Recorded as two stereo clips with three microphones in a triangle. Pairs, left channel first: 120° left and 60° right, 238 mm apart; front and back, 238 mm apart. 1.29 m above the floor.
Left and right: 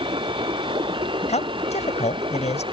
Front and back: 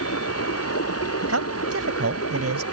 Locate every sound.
0.0 s running water: 10° left
1.3 s a man speaking: straight behind